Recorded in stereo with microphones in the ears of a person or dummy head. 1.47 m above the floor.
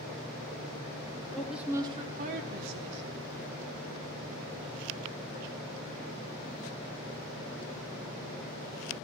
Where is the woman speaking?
10° left (ahead or behind), 0.8 m; by 3.3 s 65° right (ahead or behind), 1.7 m.